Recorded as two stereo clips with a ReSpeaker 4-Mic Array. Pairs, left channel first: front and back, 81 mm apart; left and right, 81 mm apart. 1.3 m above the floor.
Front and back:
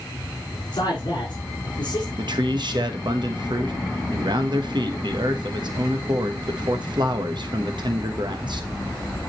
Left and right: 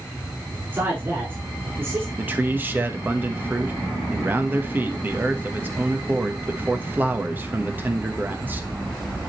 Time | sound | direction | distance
0.7 | a man speaking | 30° right | 4.5 m
2.2 | a man speaking | 155° right | 1.1 m